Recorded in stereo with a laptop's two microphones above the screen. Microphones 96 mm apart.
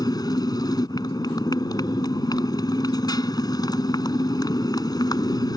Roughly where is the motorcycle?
Left.